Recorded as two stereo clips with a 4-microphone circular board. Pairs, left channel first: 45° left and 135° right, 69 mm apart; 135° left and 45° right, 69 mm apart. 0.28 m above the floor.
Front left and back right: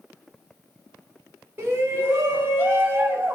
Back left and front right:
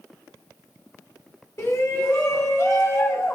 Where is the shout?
170° left, 2.5 m; by 3.4 s 175° left, 1.8 m.